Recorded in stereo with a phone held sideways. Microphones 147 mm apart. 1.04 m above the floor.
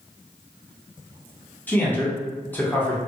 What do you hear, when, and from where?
1.7 s a man speaking: 10° left (ahead or behind), 0.8 m